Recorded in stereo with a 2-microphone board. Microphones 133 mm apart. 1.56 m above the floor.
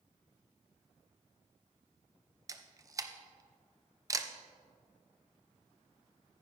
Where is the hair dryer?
I don't hear a hair dryer.